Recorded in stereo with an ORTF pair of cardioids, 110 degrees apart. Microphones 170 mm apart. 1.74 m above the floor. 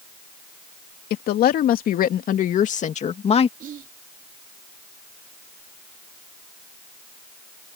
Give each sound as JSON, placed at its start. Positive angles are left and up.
{"t": 1.1, "sound": "a woman speaking", "azimuth_deg": 70}
{"t": 3.6, "sound": "whispering", "azimuth_deg": -55}